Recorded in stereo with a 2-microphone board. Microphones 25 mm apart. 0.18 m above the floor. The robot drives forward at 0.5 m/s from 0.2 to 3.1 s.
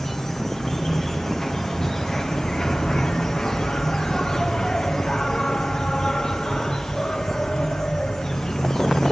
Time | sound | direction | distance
0.0 | an insect | 20° left (ahead or behind) | 3.5 m